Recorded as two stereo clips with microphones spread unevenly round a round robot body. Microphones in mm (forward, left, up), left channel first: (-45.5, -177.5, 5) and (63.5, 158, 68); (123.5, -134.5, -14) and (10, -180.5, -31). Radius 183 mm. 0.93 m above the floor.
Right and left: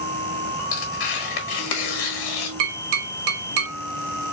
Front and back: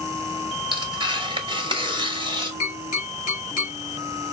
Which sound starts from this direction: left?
Tapping, at 2.6 s.